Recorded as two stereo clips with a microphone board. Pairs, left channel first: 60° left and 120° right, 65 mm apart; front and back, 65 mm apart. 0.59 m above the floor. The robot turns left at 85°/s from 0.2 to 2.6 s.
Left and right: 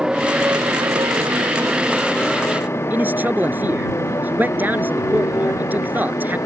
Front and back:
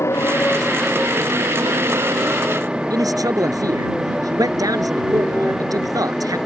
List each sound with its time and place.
0.0 s a motorcycle: 40° right; by 6.5 s 100° left
2.9 s a man speaking: straight behind